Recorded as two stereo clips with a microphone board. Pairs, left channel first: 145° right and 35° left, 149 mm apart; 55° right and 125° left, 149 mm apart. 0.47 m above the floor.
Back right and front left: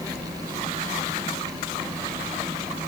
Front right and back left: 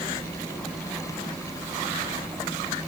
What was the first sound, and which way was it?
Only background noise.